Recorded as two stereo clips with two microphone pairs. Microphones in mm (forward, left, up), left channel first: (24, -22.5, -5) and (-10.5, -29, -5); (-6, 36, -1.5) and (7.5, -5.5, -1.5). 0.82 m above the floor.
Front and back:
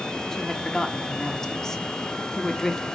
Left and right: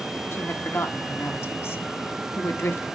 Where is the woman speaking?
90° left, 1.5 m.